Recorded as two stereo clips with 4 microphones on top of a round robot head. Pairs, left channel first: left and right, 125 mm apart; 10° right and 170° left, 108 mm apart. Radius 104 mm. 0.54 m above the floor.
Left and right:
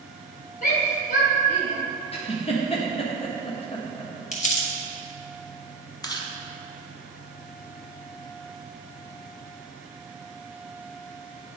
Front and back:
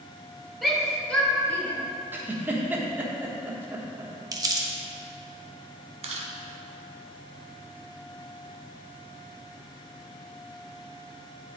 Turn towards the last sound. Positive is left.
turn(degrees=150)